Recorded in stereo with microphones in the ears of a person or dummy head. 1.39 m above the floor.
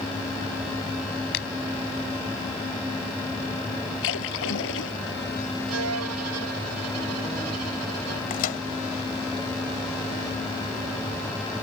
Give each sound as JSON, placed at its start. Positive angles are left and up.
{"t": 1.3, "sound": "a finger snap", "side_deg": 60}
{"t": 4.0, "sound": "a splash", "side_deg": 70}
{"t": 5.7, "sound": "a violin", "side_deg": -85}
{"t": 8.3, "sound": "a microwave", "side_deg": 45}